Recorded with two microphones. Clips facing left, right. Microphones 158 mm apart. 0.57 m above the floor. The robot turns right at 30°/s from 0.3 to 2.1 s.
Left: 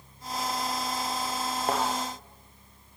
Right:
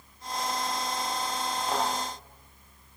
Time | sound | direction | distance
1.7 | a thud | 55° left (ahead or behind) | 6.5 m